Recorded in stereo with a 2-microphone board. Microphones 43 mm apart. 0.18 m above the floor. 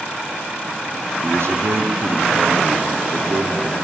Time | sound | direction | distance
1.2 | a man speaking | 65° right (ahead or behind) | 3 m